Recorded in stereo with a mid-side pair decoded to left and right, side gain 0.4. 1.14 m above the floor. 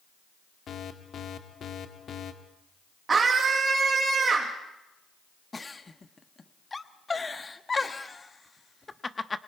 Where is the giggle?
25° left, 1.1 m.